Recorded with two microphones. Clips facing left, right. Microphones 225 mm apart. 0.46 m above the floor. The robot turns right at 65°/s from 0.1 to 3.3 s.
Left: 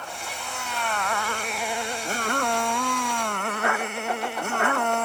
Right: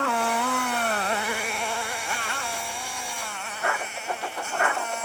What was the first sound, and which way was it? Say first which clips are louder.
A motorcycle: right 12 dB; 90° right.